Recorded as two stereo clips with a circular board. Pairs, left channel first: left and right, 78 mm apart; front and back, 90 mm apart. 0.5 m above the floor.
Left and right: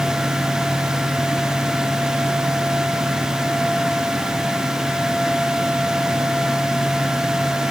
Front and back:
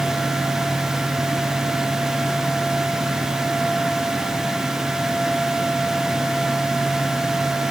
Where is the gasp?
No gasp in this recording.